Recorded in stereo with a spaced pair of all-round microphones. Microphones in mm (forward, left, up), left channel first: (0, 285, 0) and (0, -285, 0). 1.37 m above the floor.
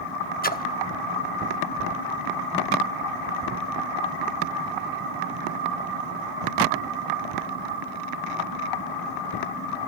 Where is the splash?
15° left (ahead or behind), 0.9 m.